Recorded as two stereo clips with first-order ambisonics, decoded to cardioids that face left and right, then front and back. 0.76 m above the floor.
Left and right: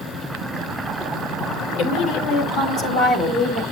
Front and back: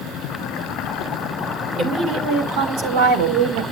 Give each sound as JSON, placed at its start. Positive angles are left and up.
{"t": 1.8, "sound": "a woman speaking", "azimuth_deg": 130, "distance_m": 2.5}